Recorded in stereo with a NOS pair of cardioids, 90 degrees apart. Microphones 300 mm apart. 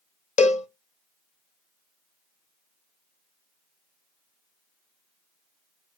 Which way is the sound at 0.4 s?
25° left.